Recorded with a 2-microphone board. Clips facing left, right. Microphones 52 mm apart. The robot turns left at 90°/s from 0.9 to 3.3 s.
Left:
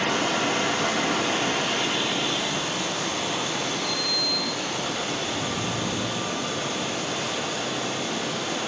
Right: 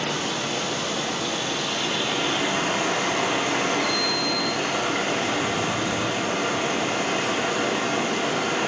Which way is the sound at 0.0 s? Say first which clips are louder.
Left 3 dB; 100° left.